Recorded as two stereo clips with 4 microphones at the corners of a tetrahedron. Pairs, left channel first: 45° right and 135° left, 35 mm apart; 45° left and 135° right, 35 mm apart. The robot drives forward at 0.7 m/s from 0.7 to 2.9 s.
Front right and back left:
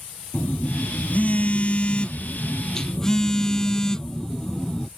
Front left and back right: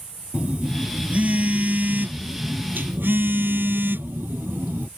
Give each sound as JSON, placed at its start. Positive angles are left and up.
{"t": 0.3, "sound": "a phone buzzing", "azimuth_deg": -80}